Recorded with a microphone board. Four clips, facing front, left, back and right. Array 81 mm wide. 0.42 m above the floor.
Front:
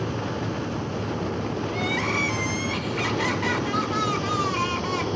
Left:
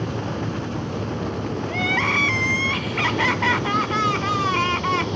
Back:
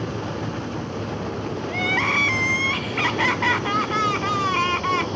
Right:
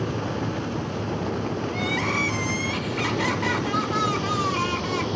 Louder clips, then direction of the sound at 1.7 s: Left 6 dB, back 5 dB; 135° left.